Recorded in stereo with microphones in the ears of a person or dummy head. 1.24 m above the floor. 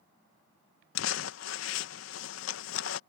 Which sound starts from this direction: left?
Crumpling, at 0.9 s.